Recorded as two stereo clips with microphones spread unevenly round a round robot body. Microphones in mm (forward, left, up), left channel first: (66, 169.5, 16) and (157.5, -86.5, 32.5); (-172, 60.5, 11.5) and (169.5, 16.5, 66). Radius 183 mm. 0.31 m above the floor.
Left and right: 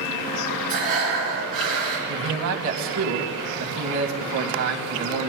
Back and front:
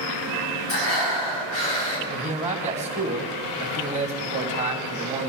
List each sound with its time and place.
0.7 s breathing: 135° right, 5.5 m
2.1 s a man speaking: 80° right, 2 m